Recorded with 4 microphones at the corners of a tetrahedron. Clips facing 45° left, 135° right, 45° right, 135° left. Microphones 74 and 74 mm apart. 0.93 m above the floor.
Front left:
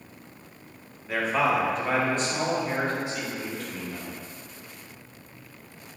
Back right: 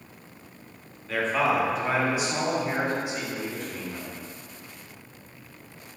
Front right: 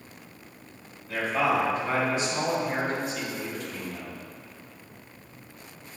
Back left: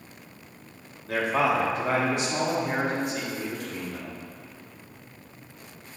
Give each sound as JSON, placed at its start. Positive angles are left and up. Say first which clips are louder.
{"t": 1.1, "sound": "a man speaking", "louder": "even, back left 1 dB", "azimuth_deg": 120, "distance_m": 1.5}